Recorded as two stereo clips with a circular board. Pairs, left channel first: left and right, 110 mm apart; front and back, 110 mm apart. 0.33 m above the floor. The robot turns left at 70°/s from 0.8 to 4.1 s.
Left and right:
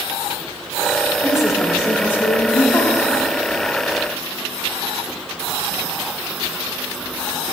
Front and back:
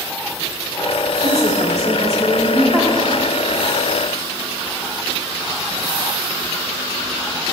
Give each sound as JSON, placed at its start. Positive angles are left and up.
{"t": 1.2, "sound": "a woman speaking", "azimuth_deg": -155, "distance_m": 1.1}